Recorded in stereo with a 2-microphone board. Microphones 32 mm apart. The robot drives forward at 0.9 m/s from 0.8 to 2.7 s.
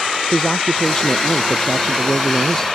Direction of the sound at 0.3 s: 15° left (ahead or behind).